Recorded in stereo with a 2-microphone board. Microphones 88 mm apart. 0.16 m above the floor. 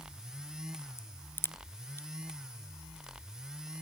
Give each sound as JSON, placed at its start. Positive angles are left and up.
{"t": 1.0, "sound": "a crack", "side_deg": 25}